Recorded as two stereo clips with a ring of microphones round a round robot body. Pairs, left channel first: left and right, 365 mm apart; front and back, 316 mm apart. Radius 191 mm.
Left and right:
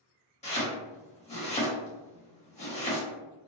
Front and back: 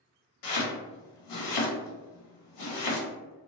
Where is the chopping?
15° left, 1.0 m.